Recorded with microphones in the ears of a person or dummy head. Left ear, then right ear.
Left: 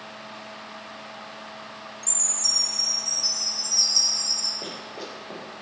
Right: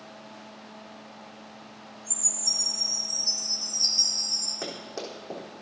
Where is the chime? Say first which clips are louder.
Left 3 dB; 60° left (ahead or behind), 5 m.